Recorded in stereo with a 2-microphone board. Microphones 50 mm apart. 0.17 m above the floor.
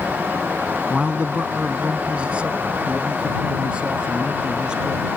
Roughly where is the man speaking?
Right.